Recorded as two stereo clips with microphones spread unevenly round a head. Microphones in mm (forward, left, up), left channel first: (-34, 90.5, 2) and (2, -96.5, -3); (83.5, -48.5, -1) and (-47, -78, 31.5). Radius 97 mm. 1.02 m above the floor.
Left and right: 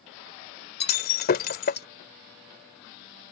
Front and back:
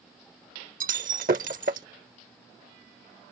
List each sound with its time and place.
0.8 s breaking glass: 140° left